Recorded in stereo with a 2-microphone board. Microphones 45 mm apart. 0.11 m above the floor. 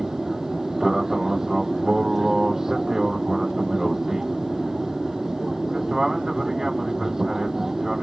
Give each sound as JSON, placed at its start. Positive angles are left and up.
{"t": 0.0, "sound": "an aircraft", "side_deg": -10}